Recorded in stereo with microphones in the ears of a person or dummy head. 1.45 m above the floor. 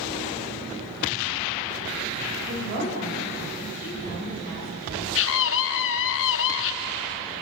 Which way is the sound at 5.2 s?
70° left (ahead or behind).